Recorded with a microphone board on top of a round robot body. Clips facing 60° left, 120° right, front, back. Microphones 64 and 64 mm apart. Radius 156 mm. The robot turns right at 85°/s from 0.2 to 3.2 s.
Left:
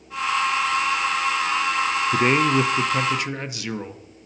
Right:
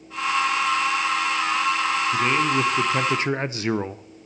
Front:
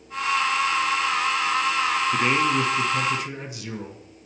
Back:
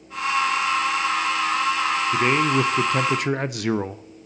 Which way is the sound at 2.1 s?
100° left.